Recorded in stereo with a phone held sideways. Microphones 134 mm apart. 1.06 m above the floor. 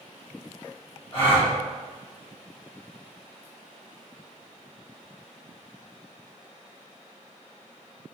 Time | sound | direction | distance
1.1 | a gasp | 45° left (ahead or behind) | 1.3 m